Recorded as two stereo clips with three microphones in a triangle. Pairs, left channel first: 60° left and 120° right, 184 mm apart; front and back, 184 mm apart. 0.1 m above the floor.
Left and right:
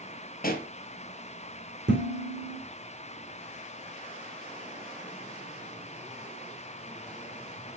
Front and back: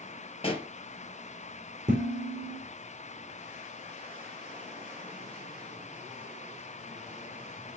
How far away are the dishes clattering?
About 4 m.